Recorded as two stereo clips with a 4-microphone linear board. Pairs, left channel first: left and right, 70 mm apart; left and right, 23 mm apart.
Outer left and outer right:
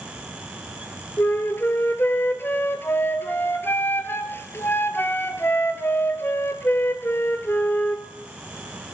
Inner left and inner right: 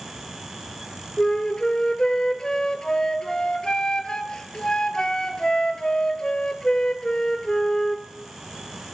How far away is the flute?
About 0.7 m.